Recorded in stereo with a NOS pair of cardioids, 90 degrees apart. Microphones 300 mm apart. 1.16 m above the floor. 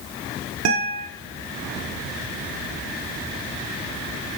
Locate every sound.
0.7 s a guitar: 55° right, 0.6 m